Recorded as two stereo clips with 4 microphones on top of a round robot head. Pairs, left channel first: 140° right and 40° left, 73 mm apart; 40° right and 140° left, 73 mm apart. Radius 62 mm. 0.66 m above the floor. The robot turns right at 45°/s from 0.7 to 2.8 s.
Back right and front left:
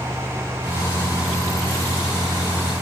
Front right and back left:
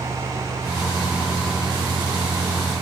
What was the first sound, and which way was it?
Only background noise.